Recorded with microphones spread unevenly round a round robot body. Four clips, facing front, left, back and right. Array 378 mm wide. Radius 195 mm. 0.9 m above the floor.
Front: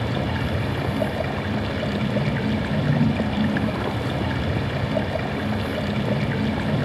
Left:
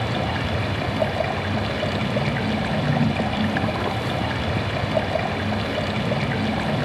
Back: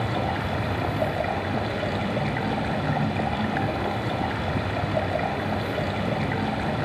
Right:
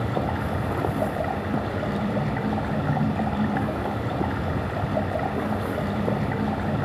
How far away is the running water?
About 0.8 m.